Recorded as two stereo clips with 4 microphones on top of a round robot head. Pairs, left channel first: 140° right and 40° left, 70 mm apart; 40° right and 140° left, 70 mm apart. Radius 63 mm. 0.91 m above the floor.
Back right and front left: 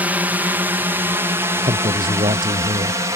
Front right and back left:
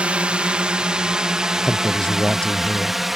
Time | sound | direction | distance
0.0 | a drone | 85° left | ?
1.6 | a man speaking | 40° left | ?